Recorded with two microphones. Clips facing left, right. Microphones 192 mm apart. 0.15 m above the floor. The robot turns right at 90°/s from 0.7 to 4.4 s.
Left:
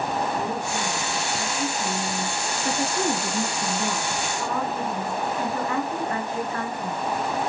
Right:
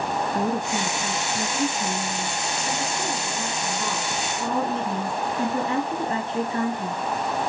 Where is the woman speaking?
120° right, 1.6 m; by 7.0 s 145° right, 1.6 m.